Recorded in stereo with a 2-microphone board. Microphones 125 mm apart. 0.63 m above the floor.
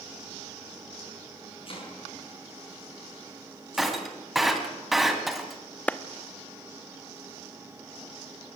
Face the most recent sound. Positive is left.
turn(degrees=10)  # may be behind; listen again after turning